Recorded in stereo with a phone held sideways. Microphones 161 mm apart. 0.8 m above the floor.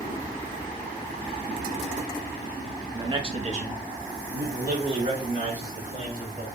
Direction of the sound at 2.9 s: 20° right (ahead or behind).